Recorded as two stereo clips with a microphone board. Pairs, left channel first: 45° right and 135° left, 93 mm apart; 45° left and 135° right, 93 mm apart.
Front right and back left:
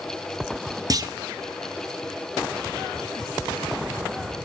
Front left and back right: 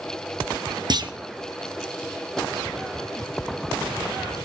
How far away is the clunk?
About 0.6 m.